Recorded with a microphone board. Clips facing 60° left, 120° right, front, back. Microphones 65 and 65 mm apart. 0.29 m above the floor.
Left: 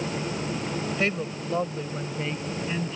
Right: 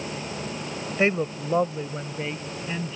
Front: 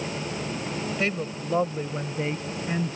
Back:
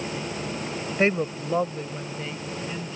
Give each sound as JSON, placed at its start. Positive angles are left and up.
{"t": 1.0, "sound": "a woman speaking", "azimuth_deg": -160}